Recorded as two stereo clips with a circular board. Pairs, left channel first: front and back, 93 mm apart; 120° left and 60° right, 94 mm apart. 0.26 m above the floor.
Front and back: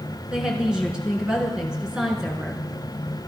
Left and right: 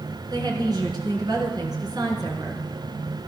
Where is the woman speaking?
100° right, 4 m.